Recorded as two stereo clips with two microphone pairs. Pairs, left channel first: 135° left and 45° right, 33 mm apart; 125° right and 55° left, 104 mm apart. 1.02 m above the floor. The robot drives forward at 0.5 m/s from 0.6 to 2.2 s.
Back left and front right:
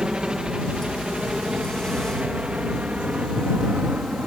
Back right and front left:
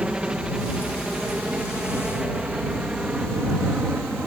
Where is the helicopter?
20° right; by 4.3 s 25° right.